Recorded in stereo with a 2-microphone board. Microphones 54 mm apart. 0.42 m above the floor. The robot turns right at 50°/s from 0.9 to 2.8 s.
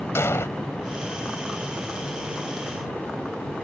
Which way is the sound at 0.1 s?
55° left (ahead or behind).